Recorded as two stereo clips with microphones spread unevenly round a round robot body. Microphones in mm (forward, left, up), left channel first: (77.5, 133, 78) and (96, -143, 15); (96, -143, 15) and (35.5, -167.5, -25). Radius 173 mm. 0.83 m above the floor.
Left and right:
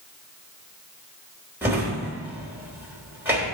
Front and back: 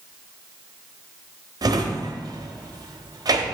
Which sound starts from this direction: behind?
A drawer, at 1.6 s.